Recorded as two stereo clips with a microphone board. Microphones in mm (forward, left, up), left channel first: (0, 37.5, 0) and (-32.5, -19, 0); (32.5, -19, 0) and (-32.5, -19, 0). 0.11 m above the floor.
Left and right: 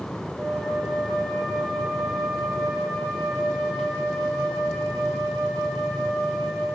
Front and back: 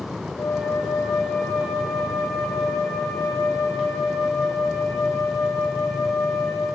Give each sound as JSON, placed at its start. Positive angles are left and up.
{"t": 0.4, "sound": "a flute", "azimuth_deg": -35, "distance_m": 2.0}